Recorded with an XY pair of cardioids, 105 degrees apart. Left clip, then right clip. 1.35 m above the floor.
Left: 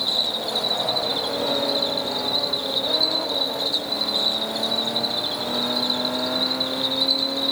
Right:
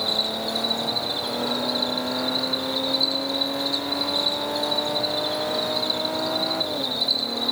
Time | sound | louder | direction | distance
0.0 | an insect | left 1 dB | 30° left | 4 m